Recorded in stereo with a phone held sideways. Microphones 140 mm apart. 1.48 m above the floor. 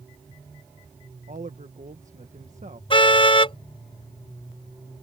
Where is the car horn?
40° left (ahead or behind).